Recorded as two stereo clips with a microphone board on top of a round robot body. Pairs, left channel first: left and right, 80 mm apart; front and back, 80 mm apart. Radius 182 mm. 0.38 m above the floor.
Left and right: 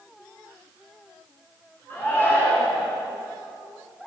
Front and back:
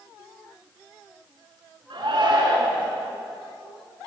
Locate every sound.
1.9 s a shout: 155° left, 6.5 m